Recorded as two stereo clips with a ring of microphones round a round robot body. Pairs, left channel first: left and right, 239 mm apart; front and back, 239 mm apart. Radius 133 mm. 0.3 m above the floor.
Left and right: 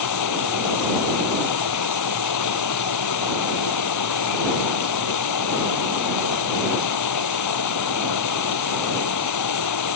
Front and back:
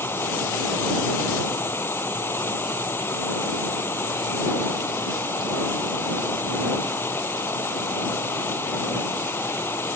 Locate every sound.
0.0 s running water: 85° left